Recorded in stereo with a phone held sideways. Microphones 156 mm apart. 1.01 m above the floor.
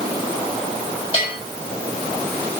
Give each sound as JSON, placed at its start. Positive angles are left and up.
{"t": 1.1, "sound": "a bell", "side_deg": 35, "distance_m": 7.5}